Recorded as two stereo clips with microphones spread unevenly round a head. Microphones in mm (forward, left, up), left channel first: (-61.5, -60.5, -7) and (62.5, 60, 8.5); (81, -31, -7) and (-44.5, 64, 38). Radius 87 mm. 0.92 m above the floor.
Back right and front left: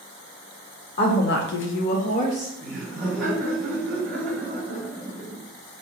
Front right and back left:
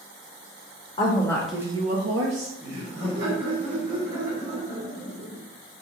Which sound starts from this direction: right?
A woman speaking, at 1.0 s.